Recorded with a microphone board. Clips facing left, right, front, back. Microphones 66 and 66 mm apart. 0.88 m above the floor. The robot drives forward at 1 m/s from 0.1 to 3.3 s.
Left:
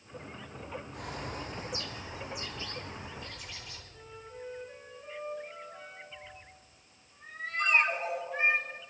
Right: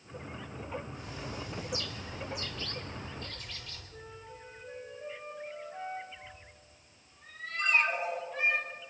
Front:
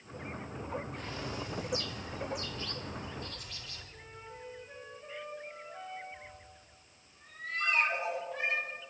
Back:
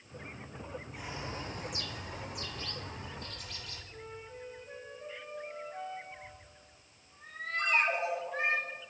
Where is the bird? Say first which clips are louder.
Left 2 dB, front 2 dB; 95° left, 0.7 m; by 3.8 s 165° left, 2.5 m.